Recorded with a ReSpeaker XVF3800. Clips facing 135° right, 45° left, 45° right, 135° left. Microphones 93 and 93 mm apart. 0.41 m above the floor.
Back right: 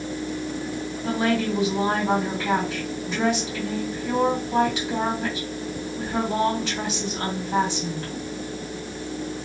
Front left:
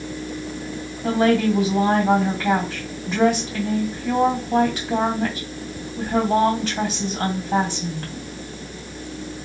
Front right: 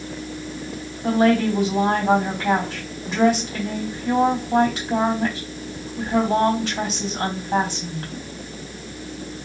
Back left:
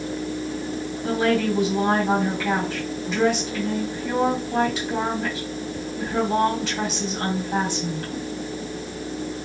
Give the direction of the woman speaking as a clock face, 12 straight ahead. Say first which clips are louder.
Front left 6 dB, front right 4 dB; 12 o'clock.